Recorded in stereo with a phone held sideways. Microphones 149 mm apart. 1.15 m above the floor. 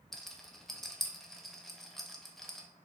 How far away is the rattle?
About 0.6 m.